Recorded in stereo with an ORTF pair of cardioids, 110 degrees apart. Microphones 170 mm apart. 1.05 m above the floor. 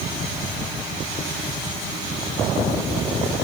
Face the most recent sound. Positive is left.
No sound to turn to.